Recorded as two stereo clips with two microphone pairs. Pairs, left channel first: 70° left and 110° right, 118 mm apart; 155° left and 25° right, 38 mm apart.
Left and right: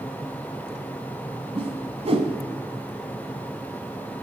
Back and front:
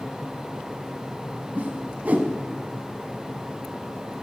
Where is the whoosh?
70° right, 0.9 m.